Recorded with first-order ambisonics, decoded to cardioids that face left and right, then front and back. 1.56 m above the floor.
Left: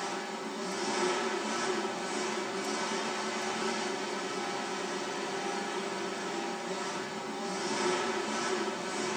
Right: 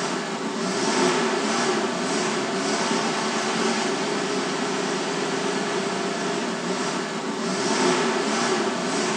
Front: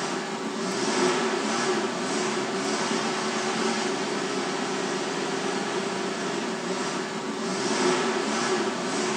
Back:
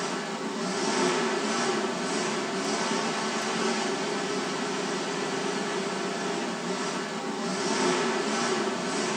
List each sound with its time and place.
0.0 s an engine running: 80° right, 0.8 m